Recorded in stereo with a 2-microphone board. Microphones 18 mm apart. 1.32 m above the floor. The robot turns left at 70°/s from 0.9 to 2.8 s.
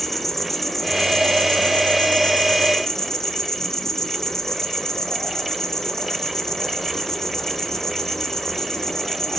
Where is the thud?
I don't hear a thud.